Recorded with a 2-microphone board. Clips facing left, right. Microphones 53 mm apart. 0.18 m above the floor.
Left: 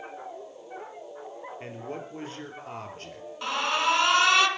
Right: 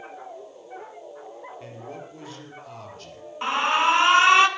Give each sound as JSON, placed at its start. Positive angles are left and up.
{"t": 1.6, "sound": "a man speaking", "side_deg": 40, "distance_m": 3.5}
{"t": 3.4, "sound": "an alarm", "side_deg": -25, "distance_m": 1.6}